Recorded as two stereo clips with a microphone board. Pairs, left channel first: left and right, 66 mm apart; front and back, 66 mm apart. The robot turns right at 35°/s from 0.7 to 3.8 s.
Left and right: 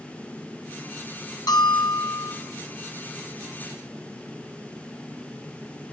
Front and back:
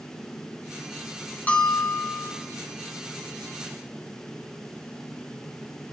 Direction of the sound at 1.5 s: 70° left.